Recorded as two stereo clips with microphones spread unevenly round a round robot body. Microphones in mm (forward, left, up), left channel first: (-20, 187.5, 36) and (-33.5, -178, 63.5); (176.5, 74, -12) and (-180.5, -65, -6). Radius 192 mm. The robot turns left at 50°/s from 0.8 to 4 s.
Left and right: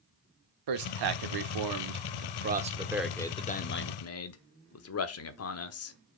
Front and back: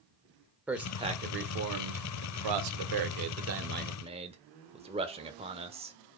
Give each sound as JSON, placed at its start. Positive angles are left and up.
{"t": 0.7, "sound": "a man speaking", "azimuth_deg": -70, "distance_m": 1.2}